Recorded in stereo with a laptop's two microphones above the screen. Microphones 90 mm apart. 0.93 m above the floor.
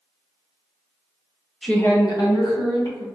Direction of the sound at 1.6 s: 5° left (ahead or behind).